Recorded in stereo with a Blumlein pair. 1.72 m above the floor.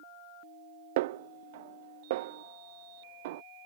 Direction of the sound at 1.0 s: 55° right.